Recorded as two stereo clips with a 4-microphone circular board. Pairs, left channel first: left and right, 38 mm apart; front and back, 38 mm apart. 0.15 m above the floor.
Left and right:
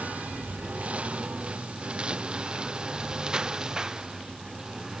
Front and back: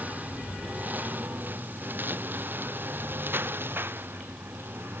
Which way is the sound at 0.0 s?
135° right.